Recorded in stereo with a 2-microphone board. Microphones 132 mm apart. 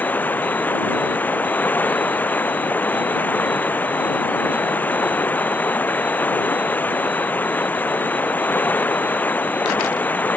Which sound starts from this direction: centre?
Running water, at 0.0 s.